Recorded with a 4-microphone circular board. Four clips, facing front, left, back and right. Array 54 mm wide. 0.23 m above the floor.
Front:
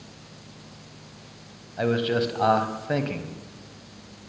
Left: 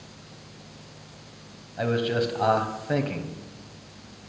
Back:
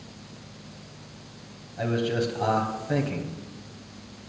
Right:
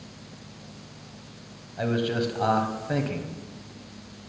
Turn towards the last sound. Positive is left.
turn(degrees=15)